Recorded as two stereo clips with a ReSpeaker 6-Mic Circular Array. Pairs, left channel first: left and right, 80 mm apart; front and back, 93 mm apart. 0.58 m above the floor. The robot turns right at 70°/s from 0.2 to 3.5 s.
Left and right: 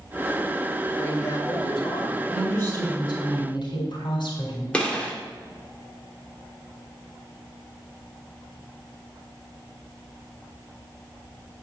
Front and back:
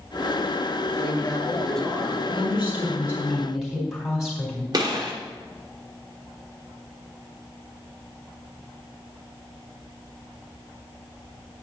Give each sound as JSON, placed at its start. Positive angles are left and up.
{"t": 1.0, "sound": "a man speaking", "azimuth_deg": 30, "distance_m": 2.0}
{"t": 2.3, "sound": "a woman speaking", "azimuth_deg": 10, "distance_m": 4.0}
{"t": 4.7, "sound": "a gunshot", "azimuth_deg": 165, "distance_m": 1.8}